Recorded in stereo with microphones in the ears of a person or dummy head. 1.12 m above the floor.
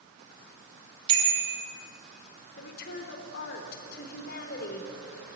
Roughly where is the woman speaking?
Left.